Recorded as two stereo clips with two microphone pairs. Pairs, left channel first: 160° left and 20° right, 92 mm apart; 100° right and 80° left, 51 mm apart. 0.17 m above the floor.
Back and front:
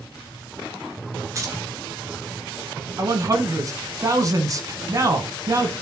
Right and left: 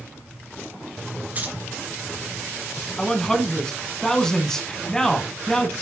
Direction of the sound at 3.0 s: 25° right.